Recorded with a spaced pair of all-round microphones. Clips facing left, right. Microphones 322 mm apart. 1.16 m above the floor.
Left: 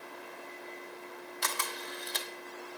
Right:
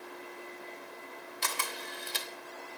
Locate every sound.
1.4 s a camera shutter: 35° right (ahead or behind), 0.9 m